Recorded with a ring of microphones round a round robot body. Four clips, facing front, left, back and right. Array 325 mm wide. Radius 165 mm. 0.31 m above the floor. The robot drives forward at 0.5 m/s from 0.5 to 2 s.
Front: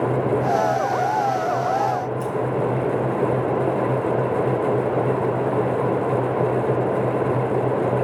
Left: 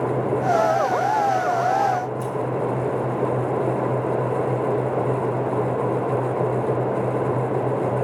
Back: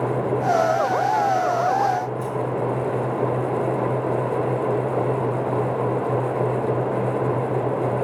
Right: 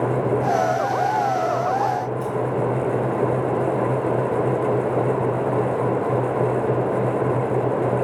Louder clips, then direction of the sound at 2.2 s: Right 1 dB, front 2 dB; 40° left.